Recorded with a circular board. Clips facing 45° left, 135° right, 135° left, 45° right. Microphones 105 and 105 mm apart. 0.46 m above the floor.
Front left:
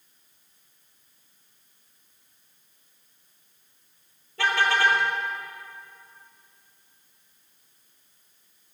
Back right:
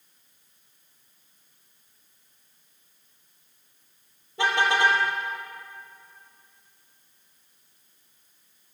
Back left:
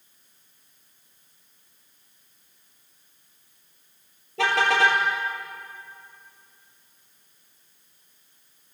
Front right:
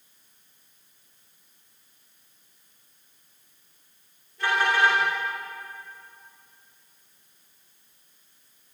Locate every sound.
4.4 s a car horn: 150° left, 4.5 m